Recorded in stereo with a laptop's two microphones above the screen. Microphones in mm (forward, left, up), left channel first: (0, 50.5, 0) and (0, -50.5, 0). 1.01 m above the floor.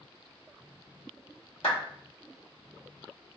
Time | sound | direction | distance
1.6 | a clap | 80° left | 1.4 m